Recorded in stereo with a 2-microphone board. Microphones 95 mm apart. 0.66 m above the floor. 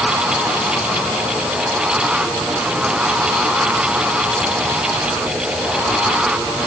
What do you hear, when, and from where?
Only background noise.